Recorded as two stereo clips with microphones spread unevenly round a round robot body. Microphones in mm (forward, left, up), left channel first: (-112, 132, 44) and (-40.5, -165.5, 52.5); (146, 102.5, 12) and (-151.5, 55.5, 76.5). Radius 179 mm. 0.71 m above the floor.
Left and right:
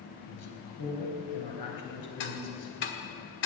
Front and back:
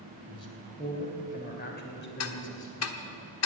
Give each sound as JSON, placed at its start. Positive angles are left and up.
{"t": 0.3, "sound": "a man speaking", "azimuth_deg": 85, "distance_m": 3.5}
{"t": 2.2, "sound": "ticking", "azimuth_deg": 45, "distance_m": 1.2}